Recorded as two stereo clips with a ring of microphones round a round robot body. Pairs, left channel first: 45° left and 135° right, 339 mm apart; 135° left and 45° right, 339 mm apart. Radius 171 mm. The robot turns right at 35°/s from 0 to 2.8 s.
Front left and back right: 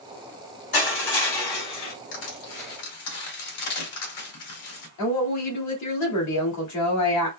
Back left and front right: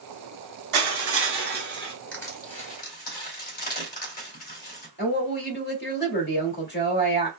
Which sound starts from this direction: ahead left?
Crushing, at 2.1 s.